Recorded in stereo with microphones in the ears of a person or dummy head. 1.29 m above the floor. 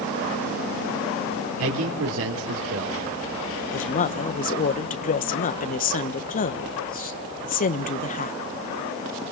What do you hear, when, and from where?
1.6 s a man speaking: 85° right, 3.5 m
3.7 s a woman speaking: 45° left (ahead or behind), 1.0 m